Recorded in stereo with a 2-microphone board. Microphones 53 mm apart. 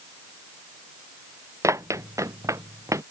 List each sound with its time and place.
1.6 s running footsteps: 75° right (ahead or behind); by 3.0 s 85° right